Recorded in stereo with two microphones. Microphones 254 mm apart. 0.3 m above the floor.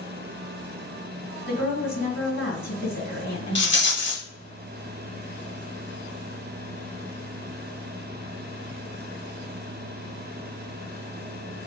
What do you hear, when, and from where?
1.5 s a woman speaking: 50° left (ahead or behind), 1.8 m
3.5 s a rattle: 45° left (ahead or behind), 0.9 m